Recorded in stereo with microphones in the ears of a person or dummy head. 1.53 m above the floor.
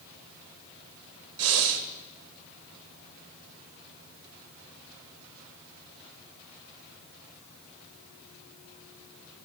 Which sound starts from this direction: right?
Breathing, at 1.4 s.